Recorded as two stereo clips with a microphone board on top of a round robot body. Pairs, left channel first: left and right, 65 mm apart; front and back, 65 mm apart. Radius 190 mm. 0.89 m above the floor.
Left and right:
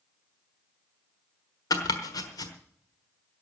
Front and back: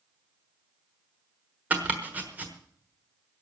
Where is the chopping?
115° left, 1.2 m.